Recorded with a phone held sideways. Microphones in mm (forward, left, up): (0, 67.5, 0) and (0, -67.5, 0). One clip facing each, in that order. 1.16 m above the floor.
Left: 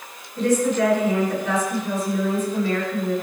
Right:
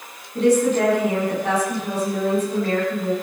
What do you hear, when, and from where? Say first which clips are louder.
0.3 s a woman speaking: right 3 dB; 65° right (ahead or behind), 8.5 m